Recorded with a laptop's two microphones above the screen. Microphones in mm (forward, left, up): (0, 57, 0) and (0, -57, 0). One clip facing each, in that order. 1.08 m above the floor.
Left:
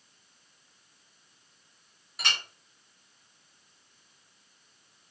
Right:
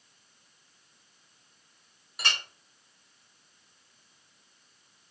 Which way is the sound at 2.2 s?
Centre (ahead or behind).